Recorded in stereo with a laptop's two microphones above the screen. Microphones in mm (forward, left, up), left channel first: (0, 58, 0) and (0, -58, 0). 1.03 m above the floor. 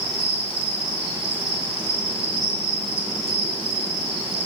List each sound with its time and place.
0.0 s an insect: 10° right (ahead or behind), 2 m